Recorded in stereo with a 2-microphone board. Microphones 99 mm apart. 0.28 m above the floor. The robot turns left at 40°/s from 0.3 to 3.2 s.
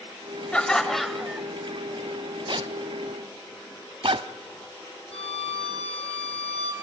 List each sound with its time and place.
0.5 s laughter: 10° left (ahead or behind), 1.0 m; by 1.5 s 10° right (ahead or behind), 1.0 m
2.5 s a zipper: 55° right (ahead or behind), 0.7 m; by 4.3 s 65° right (ahead or behind), 0.7 m
5.1 s a violin: 80° left, 3 m